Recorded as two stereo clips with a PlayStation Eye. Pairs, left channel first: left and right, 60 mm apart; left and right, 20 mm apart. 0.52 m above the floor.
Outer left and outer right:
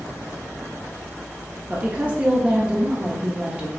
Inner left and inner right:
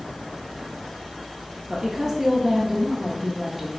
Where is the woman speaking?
25° right (ahead or behind), 0.7 m.